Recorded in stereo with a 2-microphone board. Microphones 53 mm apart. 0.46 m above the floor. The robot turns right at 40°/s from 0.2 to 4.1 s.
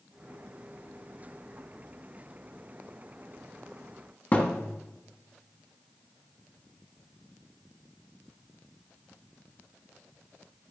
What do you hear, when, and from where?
4.3 s a thud: 35° left (ahead or behind), 1.3 m